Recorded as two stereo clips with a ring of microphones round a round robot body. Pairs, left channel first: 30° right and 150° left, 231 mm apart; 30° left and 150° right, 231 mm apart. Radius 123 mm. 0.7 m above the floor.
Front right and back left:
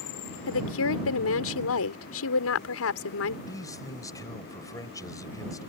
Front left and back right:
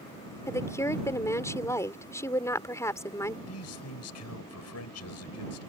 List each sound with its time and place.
0.5 s a woman speaking: 50° right
3.5 s a man speaking: 45° left